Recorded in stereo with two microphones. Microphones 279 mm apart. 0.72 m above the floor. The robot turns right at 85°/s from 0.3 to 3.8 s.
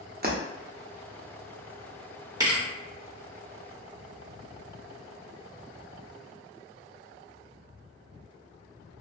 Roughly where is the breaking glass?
Right.